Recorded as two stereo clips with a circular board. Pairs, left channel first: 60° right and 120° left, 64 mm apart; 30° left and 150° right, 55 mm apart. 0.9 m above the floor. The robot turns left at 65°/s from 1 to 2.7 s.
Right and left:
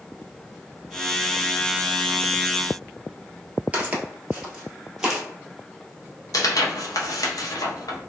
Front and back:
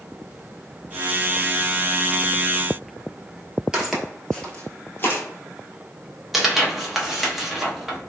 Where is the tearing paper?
65° right, 0.6 m.